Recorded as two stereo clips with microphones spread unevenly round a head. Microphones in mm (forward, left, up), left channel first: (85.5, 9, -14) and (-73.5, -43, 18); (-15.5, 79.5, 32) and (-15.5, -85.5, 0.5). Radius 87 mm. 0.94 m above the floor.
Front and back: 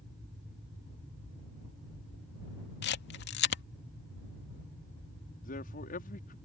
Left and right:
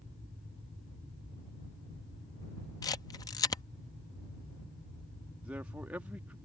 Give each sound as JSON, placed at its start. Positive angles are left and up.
{"t": 2.8, "sound": "a camera shutter", "azimuth_deg": 15}
{"t": 5.4, "sound": "a man speaking", "azimuth_deg": -10}